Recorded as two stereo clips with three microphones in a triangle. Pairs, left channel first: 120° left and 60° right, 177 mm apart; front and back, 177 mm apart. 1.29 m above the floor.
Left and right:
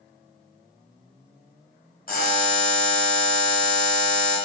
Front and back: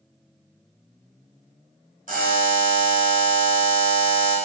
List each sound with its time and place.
2.1 s a buzzer: 145° left, 0.8 m